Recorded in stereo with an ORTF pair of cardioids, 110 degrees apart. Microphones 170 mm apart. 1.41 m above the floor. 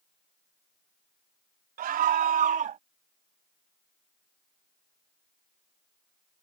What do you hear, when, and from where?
1.8 s a scream: 60° right; by 2.8 s 50° right